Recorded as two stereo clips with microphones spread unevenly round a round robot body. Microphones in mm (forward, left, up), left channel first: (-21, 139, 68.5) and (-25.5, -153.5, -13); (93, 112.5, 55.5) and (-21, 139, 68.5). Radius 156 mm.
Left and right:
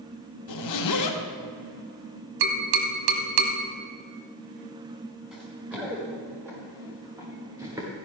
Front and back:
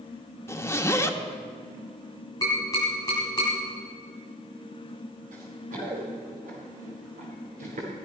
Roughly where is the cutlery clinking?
I don't hear cutlery clinking.